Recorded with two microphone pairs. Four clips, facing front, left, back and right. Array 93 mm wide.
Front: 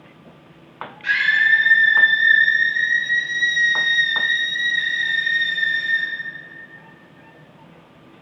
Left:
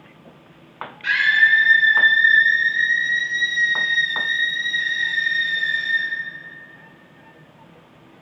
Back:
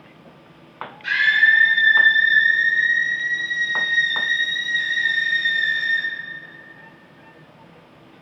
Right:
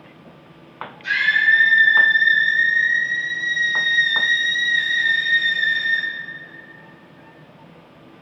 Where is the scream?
50° left, 2 m; by 6.1 s 90° right, 1.8 m.